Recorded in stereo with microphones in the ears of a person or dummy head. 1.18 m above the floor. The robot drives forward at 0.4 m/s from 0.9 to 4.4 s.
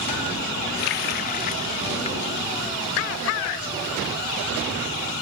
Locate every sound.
0.8 s a running tap: 50° left (ahead or behind); by 2.4 s 25° left (ahead or behind)